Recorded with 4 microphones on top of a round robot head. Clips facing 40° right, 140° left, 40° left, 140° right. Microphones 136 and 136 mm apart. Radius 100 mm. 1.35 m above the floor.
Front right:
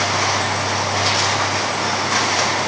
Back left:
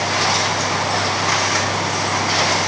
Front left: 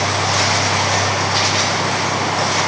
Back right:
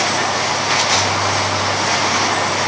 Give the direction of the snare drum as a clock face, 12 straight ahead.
No snare drum in this recording.